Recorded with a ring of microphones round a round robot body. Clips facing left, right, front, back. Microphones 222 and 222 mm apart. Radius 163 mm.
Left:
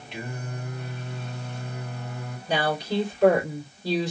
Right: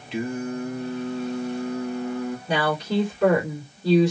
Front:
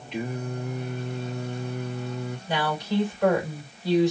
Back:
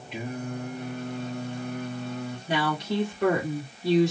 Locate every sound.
0.1 s singing: 95° right, 1.2 m
2.5 s a woman speaking: 130° right, 3 m